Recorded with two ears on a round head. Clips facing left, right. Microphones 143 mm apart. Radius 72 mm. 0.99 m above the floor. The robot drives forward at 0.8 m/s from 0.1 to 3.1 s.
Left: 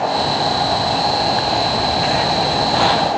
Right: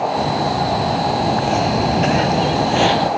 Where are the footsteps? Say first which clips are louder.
Even; 30° right (ahead or behind), 3 m; by 3.1 s 20° right (ahead or behind), 2 m.